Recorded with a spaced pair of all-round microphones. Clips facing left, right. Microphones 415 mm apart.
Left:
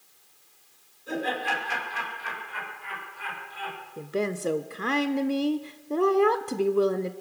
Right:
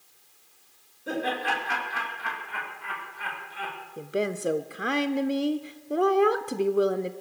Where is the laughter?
70° right (ahead or behind), 5 m.